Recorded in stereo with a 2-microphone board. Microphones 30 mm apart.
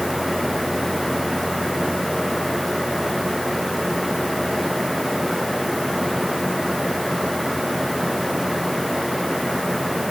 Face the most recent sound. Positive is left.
No sound to turn to.